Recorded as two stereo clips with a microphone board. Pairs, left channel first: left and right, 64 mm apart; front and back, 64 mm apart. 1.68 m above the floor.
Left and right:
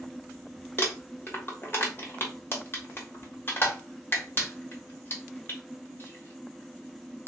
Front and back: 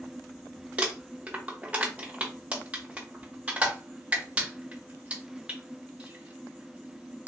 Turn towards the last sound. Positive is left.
turn(degrees=115)